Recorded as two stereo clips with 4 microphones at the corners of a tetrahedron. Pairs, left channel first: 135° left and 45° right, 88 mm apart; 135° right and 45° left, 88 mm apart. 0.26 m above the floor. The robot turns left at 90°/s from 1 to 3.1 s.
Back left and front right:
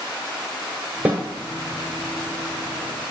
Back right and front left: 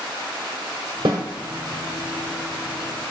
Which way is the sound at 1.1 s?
30° left.